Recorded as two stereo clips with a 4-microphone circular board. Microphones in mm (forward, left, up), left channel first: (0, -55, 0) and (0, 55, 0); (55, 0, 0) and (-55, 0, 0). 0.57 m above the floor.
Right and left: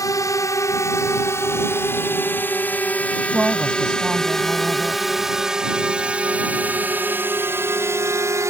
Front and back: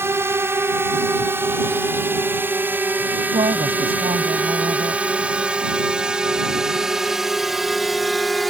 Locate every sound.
0.0 s a drone: 125° right; by 8.5 s 90° left
3.3 s a woman speaking: 170° left